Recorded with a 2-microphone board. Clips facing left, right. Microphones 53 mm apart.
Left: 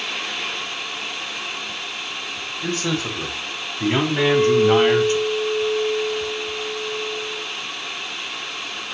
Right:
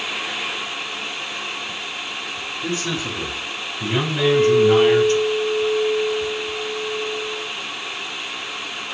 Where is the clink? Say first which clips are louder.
Right 2 dB; 60° left (ahead or behind), 5 m.